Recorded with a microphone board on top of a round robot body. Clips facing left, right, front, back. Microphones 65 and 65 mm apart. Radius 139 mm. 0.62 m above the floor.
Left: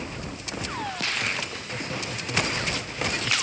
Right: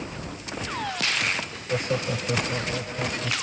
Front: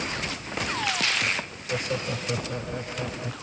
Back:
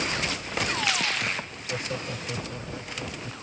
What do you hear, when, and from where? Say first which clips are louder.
1.7 s laughter: right 9 dB, front 4 dB; 75° right; by 3.3 s 50° right